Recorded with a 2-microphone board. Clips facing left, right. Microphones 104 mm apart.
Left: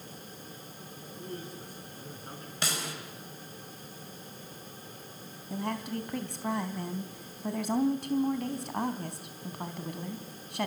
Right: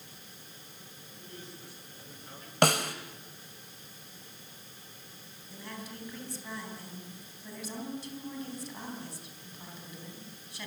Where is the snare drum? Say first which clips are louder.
Right 11 dB; 60° right (ahead or behind), 2 m.